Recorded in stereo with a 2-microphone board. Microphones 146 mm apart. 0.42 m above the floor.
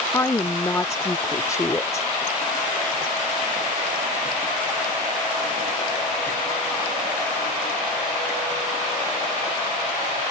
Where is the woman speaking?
20° left (ahead or behind).